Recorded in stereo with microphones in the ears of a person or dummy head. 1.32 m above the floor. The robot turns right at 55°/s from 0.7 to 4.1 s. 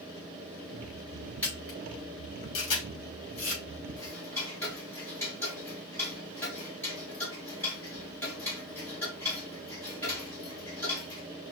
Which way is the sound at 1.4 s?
10° left (ahead or behind).